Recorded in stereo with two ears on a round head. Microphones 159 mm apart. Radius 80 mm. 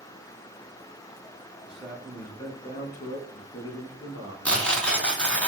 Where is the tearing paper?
5° left (ahead or behind), 0.7 m.